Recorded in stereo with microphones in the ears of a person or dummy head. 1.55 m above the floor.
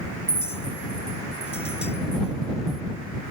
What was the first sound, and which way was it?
A clink, 5° right (ahead or behind).